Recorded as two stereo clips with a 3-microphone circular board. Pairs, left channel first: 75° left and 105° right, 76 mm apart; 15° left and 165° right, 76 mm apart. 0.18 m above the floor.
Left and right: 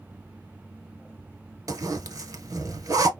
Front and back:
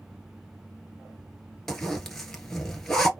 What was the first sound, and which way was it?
A zipper, 70° right.